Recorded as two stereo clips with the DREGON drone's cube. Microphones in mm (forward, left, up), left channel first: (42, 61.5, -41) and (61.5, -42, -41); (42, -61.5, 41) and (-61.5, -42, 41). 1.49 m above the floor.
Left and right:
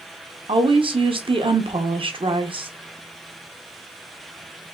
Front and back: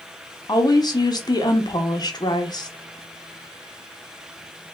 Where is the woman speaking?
55° right, 0.7 m.